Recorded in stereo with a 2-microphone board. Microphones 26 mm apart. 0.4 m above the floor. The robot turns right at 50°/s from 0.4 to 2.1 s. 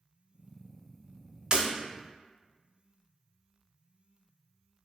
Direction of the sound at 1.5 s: 40° right (ahead or behind).